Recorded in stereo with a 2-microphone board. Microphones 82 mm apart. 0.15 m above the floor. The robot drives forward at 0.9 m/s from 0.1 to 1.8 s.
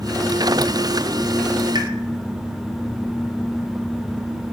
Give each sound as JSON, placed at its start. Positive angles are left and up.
{"t": 1.8, "sound": "a pop", "side_deg": -65, "distance_m": 2.5}